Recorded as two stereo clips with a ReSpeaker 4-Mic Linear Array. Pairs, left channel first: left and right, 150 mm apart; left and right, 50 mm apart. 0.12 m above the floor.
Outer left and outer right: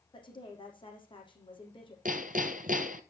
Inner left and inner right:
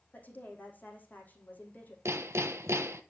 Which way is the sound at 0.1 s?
35° left (ahead or behind).